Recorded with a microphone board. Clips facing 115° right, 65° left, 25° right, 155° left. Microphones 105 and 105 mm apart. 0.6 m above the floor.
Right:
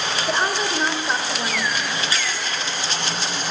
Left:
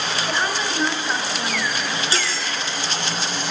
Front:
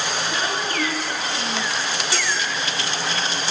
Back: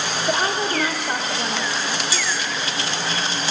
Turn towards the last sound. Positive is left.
turn(degrees=5)